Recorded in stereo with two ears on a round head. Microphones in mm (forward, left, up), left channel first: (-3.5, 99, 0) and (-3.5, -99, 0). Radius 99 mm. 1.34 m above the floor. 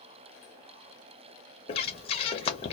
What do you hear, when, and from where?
1.7 s breathing: 30° left (ahead or behind), 0.6 m